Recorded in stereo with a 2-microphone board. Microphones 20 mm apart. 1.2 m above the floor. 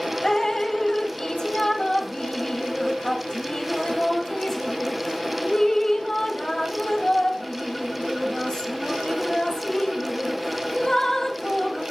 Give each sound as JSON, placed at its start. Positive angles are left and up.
{"t": 0.2, "sound": "dripping", "side_deg": 30, "distance_m": 1.1}